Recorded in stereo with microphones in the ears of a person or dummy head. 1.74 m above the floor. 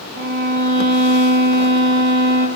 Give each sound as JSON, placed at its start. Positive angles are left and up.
{"t": 0.1, "sound": "a violin", "side_deg": -50, "distance_m": 5.0}